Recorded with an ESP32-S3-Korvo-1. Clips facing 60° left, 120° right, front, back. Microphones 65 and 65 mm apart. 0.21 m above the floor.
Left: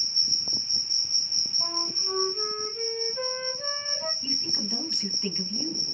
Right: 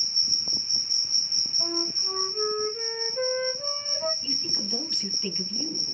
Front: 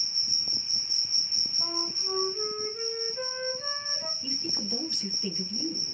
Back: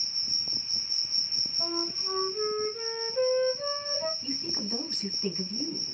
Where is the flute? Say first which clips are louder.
Right 3 dB, back 3 dB; 170° right, 3 m.